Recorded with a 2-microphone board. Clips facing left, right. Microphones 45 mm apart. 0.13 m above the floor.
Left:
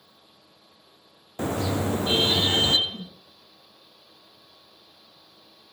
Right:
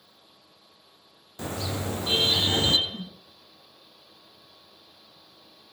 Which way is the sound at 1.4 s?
40° left (ahead or behind).